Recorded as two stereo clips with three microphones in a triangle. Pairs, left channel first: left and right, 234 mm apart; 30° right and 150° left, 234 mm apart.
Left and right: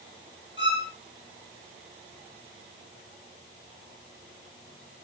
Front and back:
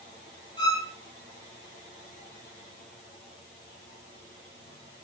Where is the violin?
125° left, 9.5 m.